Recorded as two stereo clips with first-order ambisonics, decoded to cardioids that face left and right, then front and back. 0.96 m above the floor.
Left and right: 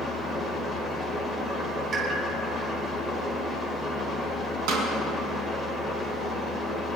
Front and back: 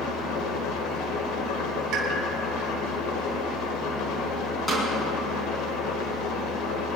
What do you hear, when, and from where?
0.0 s an engine running: 10° right, 2.5 m
1.9 s a pop: 145° right, 4 m
4.7 s a snare drum: 75° right, 4.5 m